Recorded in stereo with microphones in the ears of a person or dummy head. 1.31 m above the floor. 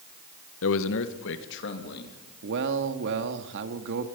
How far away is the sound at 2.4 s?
About 2.0 m.